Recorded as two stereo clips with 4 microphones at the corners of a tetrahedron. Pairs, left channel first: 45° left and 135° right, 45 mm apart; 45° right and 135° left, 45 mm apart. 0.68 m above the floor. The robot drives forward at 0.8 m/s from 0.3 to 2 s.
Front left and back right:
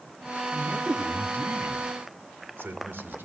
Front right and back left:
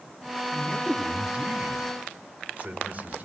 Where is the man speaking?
155° right, 0.9 m; by 3.3 s 170° right, 1.9 m.